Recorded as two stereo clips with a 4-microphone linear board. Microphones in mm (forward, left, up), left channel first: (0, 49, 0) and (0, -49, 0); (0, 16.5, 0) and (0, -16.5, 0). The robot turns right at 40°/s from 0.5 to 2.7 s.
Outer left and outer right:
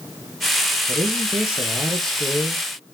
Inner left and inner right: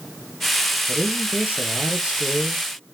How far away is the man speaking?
About 2 m.